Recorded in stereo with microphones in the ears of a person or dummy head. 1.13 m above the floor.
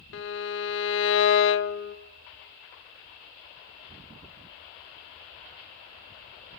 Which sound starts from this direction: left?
A violin, at 0.1 s.